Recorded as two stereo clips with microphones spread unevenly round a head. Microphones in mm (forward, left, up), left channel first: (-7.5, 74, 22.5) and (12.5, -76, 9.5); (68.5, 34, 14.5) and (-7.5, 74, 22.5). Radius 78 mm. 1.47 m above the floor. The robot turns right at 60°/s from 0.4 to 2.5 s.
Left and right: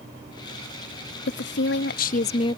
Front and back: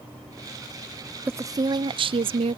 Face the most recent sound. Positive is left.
turn(degrees=160)